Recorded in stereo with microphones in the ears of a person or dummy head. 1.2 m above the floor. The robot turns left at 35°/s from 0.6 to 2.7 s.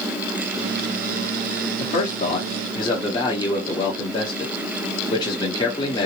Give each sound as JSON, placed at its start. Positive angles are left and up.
{"t": 1.8, "sound": "a man speaking", "azimuth_deg": 65, "distance_m": 0.9}